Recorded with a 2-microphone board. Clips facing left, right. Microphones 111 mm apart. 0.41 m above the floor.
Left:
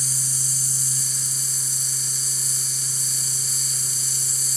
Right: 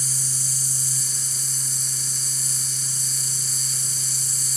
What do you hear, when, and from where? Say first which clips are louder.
0.0 s an insect: even; 25° right (ahead or behind), 1.9 m